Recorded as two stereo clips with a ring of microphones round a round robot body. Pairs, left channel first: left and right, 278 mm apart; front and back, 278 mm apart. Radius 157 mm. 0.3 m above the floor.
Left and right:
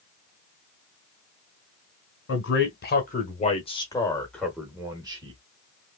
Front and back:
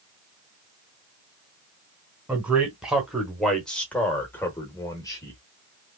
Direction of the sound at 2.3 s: 95° left.